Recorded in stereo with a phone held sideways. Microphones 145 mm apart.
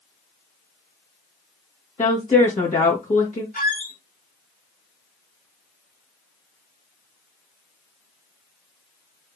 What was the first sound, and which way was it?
A woman speaking, 55° left (ahead or behind).